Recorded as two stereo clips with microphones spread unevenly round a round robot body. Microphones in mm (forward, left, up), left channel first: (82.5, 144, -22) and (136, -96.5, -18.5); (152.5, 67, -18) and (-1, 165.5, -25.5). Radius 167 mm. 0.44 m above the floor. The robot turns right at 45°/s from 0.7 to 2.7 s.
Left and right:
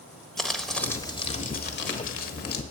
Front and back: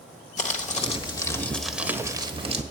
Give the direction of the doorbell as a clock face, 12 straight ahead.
No doorbell in this recording.